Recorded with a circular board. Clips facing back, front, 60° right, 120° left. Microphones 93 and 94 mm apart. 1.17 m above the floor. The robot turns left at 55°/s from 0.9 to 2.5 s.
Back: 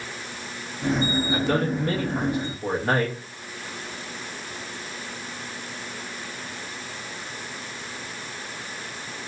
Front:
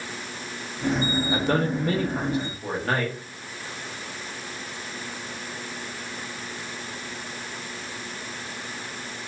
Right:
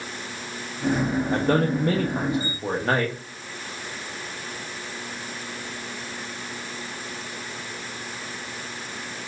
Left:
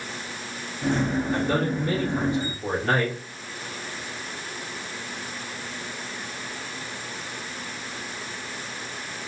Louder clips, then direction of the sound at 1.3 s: Front 1 dB, right 3 dB; 45° right.